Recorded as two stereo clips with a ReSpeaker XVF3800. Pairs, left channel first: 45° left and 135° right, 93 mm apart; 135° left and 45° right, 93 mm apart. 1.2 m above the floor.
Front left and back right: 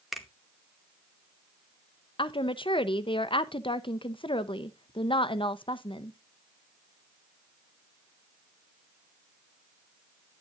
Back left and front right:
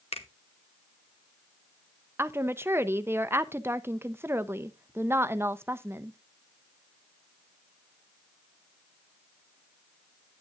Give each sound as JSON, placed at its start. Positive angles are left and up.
{"t": 0.1, "sound": "a finger snap", "azimuth_deg": 135, "distance_m": 1.0}
{"t": 2.2, "sound": "a woman speaking", "azimuth_deg": 20, "distance_m": 0.6}